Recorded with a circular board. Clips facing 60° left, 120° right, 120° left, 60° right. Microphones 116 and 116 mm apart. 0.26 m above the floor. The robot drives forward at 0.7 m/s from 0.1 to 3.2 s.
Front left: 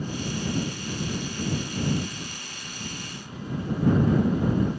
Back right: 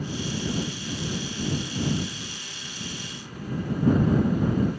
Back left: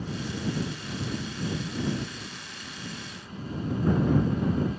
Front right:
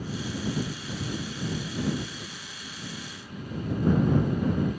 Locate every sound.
Only background noise.